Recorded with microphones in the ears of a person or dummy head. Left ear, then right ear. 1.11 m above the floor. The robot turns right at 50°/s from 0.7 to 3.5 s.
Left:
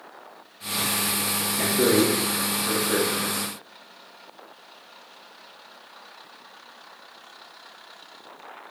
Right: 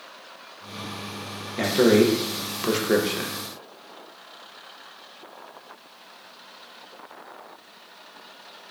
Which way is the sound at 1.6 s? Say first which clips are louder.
Right 4 dB; 35° right (ahead or behind).